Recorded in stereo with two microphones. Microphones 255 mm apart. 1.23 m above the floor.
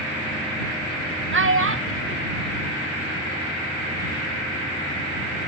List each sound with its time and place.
1.3 s a child speaking: 45° right (ahead or behind); by 3.6 s 35° right (ahead or behind)